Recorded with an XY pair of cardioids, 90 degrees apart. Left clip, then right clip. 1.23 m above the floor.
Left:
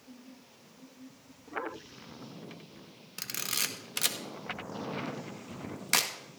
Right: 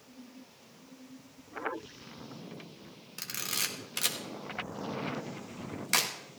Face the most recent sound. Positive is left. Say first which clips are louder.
# left 1 dB
turn(degrees=20)